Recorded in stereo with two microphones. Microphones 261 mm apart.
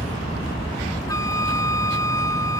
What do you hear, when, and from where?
0.0 s an aircraft: 20° left (ahead or behind)
1.1 s a flute: 10° left (ahead or behind)